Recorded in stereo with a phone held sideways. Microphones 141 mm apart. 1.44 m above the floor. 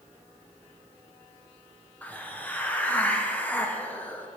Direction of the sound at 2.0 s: 10° left (ahead or behind).